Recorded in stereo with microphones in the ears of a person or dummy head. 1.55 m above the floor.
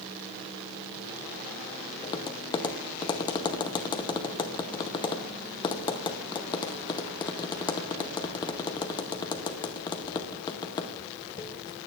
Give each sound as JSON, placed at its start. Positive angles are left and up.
{"t": 2.0, "sound": "tapping", "side_deg": 25, "distance_m": 0.8}